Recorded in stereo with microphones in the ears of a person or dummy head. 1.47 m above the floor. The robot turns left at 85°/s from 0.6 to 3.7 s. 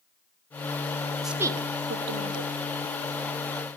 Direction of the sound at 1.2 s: Centre (ahead or behind).